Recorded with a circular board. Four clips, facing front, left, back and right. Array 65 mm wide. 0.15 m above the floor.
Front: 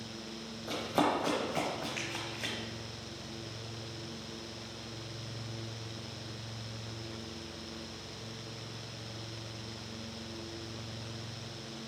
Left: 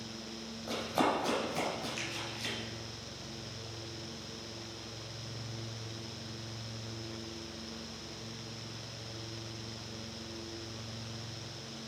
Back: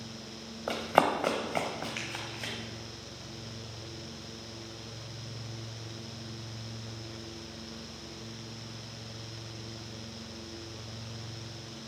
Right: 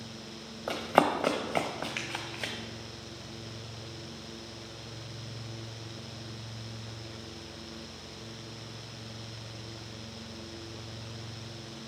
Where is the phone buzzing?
No phone buzzing in this recording.